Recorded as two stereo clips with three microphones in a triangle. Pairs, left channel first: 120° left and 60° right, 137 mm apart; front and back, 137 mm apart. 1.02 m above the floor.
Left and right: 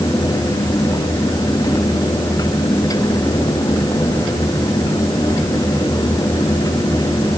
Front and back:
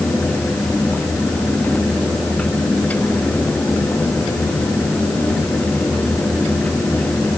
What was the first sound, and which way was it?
Only background noise.